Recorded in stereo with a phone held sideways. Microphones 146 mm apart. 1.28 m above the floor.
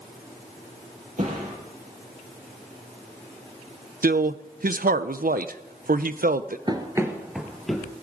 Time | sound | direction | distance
1.2 | a thud | 65° right (ahead or behind) | 8.5 m
4.0 | a man speaking | 80° right | 0.6 m
6.7 | running footsteps | 30° right (ahead or behind) | 1.4 m